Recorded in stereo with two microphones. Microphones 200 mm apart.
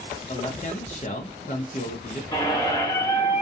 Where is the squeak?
20° left (ahead or behind), 1.0 m.